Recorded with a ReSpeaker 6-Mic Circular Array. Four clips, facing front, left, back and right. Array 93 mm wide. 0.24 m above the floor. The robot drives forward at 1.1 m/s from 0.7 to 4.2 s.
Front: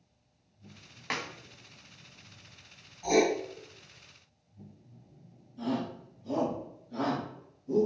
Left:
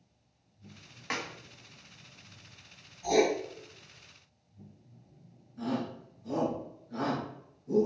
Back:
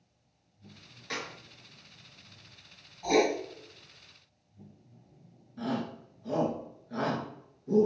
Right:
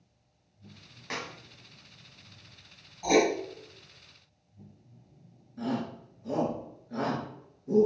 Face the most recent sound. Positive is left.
turn(degrees=-165)